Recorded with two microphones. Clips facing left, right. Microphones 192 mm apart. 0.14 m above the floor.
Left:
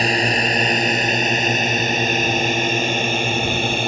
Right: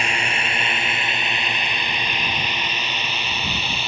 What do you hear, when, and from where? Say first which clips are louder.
0.0 s a drone: left 8 dB; 35° left (ahead or behind); by 3.9 s 50° left (ahead or behind)